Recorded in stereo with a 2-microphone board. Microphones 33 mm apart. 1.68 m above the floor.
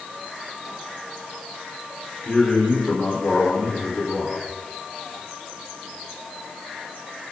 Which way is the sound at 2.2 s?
25° left (ahead or behind).